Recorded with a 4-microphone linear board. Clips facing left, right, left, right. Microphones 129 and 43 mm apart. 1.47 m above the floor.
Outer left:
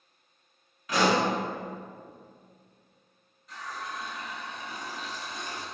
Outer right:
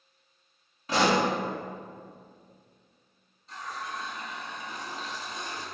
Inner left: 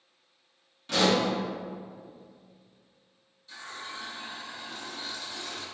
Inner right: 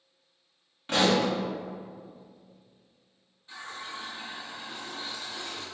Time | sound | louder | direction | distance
0.9 | a pop | even, inner right 1 dB | 30° right (ahead or behind) | 1.2 m
3.5 | a running tap | outer right 1 dB, inner right 1 dB | 25° right (ahead or behind) | 1.1 m